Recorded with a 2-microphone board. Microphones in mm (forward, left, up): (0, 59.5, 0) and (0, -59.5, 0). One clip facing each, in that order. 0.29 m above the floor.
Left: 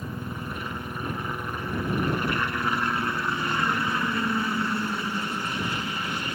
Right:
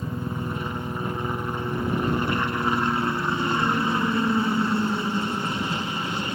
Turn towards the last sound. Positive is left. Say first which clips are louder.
# right 4 dB
turn(degrees=-25)  # may be behind; listen again after turning